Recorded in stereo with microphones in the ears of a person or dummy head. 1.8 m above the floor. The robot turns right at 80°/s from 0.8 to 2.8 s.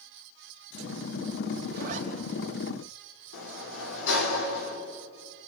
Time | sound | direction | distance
1.7 | a zipper | 60° right (ahead or behind) | 3.5 m
3.3 | a sliding door | 75° left (ahead or behind) | 3.5 m